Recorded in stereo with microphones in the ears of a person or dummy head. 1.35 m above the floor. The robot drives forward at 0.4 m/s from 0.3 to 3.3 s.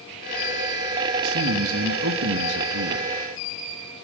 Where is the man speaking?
75° right (ahead or behind), 2 m; by 3.1 s 85° right, 2 m.